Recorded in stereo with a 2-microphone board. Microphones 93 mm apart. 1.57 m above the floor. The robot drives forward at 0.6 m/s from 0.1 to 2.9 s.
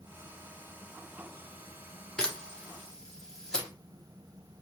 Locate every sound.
2.2 s a camera shutter: 10° left (ahead or behind), 0.8 m; by 3.7 s 5° left (ahead or behind), 1.2 m